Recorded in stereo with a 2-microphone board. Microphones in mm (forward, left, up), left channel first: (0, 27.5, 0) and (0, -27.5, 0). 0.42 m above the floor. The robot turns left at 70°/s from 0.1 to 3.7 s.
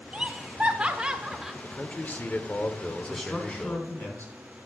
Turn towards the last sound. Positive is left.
turn(degrees=140)